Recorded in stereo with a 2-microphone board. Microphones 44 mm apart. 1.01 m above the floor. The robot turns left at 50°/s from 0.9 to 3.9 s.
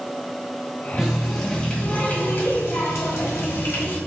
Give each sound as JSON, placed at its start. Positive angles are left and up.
{"t": 1.0, "sound": "a running tap", "azimuth_deg": -160, "distance_m": 1.4}